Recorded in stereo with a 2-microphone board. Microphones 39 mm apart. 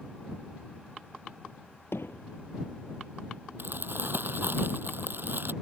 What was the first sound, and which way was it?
Hammering, 80° left.